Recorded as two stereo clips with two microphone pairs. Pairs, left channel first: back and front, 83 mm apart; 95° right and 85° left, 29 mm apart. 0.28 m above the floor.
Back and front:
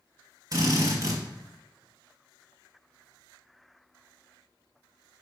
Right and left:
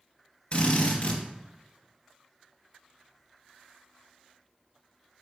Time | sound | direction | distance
0.5 | a drill | 40° right | 1.9 m